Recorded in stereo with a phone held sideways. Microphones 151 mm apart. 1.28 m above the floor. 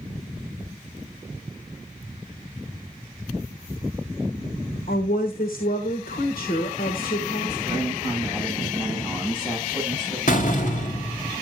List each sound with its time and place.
4.9 s a woman speaking: 65° left (ahead or behind), 1.4 m
7.7 s a man speaking: 5° left (ahead or behind), 10 m
10.3 s a door slam: 60° left (ahead or behind), 1.3 m